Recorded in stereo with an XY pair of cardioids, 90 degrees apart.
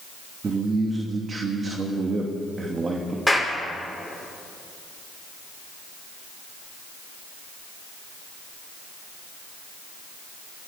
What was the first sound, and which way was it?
A man speaking, 40° right.